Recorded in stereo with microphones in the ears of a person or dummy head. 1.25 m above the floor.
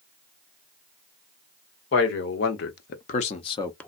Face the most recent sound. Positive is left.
turn(degrees=10)  # may be behind; listen again after turning